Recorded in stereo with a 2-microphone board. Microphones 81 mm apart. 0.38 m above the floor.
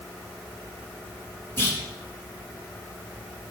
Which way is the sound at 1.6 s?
30° left (ahead or behind).